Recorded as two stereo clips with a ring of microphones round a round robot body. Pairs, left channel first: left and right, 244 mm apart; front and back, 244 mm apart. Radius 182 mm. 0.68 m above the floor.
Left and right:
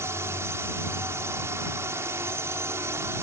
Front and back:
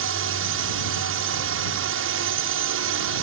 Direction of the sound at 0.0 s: 170° right.